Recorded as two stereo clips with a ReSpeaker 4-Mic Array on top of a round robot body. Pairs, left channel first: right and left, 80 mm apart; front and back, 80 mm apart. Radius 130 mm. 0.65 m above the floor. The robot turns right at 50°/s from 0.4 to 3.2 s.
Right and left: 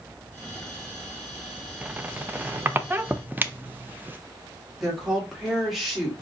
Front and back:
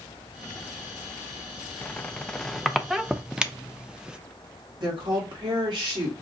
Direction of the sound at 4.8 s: Straight behind.